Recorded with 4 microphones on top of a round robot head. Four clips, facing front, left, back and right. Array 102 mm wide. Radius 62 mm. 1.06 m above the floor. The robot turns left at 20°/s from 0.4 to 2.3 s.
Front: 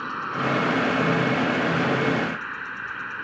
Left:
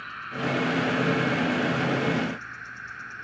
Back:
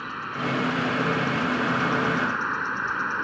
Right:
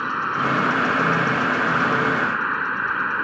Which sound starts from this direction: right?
An insect, at 0.0 s.